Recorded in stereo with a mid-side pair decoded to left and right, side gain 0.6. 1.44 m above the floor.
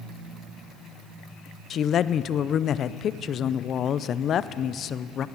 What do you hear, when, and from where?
1.7 s a woman speaking: 45° left, 0.6 m